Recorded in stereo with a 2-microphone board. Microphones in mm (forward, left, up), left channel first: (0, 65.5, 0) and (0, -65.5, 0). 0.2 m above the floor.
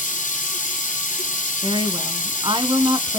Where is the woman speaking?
40° right (ahead or behind), 1.6 m.